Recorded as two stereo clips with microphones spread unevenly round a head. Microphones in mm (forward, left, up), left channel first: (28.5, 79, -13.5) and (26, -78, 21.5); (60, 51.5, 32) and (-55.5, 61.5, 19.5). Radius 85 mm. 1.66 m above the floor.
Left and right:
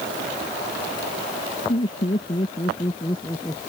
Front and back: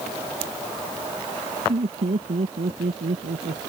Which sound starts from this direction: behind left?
Laughter, at 1.7 s.